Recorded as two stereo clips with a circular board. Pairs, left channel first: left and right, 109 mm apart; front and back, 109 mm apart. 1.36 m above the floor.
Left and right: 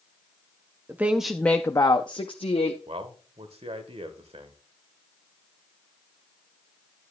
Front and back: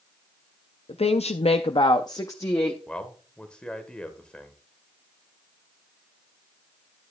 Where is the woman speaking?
20° right, 0.5 m; by 2.8 s 70° left, 0.8 m.